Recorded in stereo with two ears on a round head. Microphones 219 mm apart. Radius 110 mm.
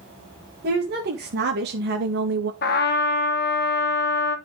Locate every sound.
0.6 s a woman speaking: 45° right (ahead or behind), 1.8 m
2.6 s a trumpet: 45° left (ahead or behind), 1.3 m